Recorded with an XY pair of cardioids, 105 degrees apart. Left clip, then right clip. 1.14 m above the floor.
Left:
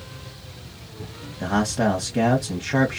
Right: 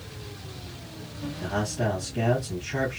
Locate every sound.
1.4 s a man speaking: 70° left, 1.3 m